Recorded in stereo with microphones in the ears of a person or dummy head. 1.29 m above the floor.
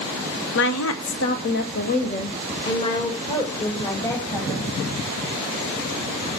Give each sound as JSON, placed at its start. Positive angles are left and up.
{"t": 0.6, "sound": "a woman speaking", "side_deg": 65, "distance_m": 0.7}